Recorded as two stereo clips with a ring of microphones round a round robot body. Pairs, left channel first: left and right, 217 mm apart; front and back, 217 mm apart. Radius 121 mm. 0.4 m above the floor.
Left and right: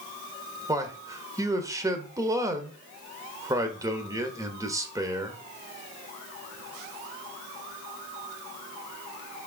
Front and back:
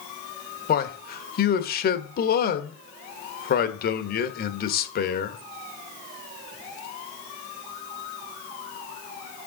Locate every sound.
0.7 s a man speaking: 20° right, 1.2 m